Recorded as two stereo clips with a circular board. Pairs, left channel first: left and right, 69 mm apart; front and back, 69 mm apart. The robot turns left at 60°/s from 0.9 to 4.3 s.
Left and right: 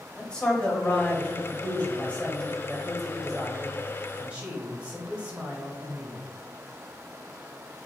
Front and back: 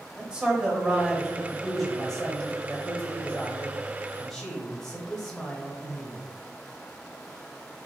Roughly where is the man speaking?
Behind left.